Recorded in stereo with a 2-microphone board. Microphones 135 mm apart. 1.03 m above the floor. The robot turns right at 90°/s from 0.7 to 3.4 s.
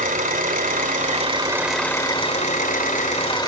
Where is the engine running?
95° right, 2.5 m; by 3.5 s 150° left, 2.5 m.